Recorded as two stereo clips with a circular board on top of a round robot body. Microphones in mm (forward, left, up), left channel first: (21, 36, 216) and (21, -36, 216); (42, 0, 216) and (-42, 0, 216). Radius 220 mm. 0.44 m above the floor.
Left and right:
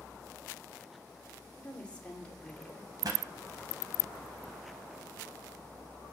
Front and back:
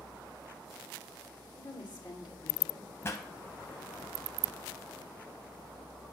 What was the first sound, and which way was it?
A woman speaking, 20° left.